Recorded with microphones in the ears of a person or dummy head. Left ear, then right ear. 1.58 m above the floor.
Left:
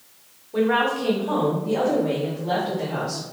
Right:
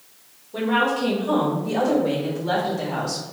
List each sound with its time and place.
0.5 s a woman speaking: 25° left (ahead or behind), 0.9 m; by 3.2 s 40° right (ahead or behind), 1.9 m